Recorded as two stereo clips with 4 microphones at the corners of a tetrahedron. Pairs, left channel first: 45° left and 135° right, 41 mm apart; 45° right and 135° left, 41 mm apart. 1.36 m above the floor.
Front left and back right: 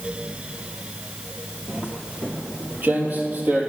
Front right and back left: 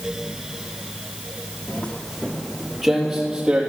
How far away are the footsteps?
About 1.7 m.